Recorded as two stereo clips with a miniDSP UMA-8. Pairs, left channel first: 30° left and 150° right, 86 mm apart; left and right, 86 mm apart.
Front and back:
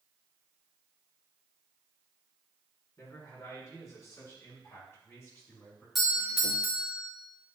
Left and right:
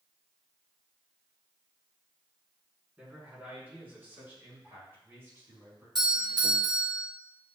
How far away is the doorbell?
About 2 m.